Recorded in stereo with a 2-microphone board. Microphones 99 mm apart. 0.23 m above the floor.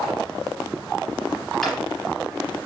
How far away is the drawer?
About 3 m.